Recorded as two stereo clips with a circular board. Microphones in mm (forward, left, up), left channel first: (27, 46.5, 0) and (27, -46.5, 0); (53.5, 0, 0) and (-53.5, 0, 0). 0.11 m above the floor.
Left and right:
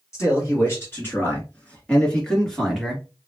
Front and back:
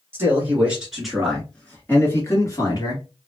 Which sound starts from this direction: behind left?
A man speaking, at 0.1 s.